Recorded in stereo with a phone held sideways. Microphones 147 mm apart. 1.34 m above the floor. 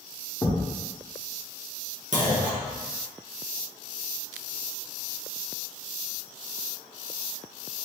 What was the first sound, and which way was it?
A thud, 5° left (ahead or behind).